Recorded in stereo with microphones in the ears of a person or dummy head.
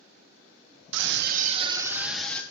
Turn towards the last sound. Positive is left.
turn(degrees=10)  # may be behind; listen again after turning